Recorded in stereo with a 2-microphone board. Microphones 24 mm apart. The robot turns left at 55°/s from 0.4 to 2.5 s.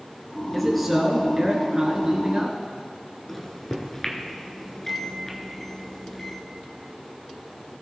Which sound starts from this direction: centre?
A microwave, at 3.3 s.